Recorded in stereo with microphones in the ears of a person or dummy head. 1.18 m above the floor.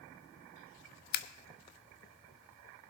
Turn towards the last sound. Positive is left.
turn(degrees=55)  # may be behind; listen again after turning